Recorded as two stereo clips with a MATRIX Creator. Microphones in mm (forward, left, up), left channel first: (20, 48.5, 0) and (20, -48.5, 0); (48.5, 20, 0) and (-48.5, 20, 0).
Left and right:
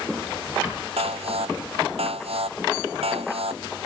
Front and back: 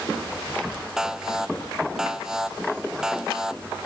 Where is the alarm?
95° right.